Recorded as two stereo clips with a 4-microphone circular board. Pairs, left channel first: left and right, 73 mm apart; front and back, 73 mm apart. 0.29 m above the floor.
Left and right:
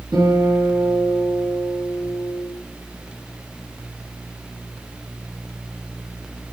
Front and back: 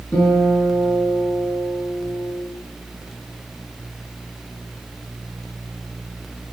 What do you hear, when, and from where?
0.1 s a guitar: 70° right, 3.5 m